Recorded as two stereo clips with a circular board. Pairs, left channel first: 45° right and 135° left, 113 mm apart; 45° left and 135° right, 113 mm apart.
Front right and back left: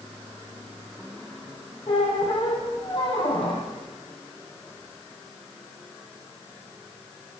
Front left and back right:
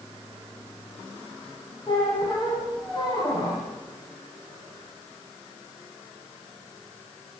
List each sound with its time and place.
1.9 s a squeak: 5° right, 7.5 m